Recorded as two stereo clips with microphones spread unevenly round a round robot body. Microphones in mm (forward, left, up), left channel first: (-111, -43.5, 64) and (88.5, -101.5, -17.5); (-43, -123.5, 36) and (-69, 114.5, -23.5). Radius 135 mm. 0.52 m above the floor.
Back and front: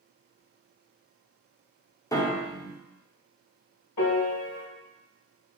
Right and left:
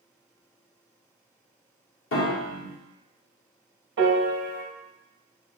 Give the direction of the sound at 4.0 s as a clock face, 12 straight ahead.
8 o'clock.